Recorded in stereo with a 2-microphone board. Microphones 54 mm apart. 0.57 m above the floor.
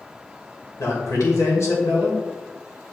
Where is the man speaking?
65° left (ahead or behind), 2 m.